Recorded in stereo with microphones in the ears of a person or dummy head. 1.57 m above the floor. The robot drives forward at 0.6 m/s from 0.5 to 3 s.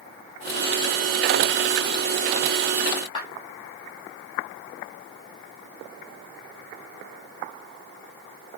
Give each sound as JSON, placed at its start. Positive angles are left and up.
{"t": 3.1, "sound": "a clap", "side_deg": 25, "distance_m": 4.5}